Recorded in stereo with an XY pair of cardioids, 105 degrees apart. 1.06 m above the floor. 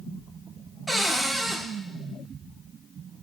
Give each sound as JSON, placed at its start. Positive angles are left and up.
{"t": 0.9, "sound": "a cupboard door", "azimuth_deg": 0, "distance_m": 0.8}